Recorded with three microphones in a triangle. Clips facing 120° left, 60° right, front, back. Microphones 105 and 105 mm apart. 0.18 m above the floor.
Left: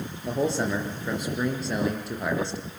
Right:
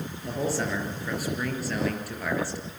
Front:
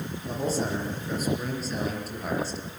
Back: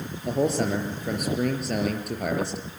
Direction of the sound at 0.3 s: 175° right.